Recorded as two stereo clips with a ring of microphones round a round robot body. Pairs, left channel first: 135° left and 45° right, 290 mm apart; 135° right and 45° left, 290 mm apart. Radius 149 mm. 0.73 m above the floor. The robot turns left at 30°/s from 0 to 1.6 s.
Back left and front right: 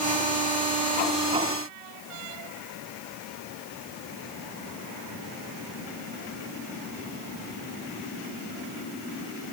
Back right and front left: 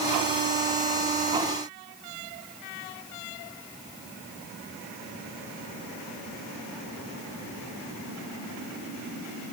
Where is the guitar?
I don't hear a guitar.